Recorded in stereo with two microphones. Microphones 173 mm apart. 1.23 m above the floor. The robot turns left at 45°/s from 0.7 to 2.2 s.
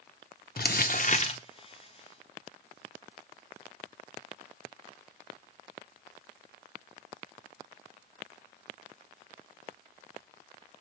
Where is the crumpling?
65° left, 0.6 m; by 1.4 s 30° left, 0.6 m.